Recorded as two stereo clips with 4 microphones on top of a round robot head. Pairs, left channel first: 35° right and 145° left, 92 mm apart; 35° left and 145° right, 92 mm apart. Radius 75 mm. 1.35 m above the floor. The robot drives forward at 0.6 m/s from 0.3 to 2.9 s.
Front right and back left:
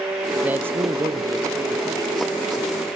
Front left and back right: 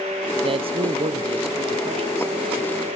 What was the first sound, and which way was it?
A man speaking, 140° right.